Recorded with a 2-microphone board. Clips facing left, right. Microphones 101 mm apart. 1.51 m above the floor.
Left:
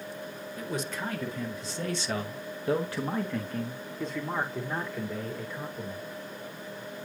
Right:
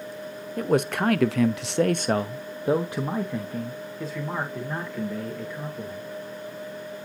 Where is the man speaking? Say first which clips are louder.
Right 12 dB; 55° right (ahead or behind), 0.8 m; by 6.1 s 5° left (ahead or behind), 2.5 m.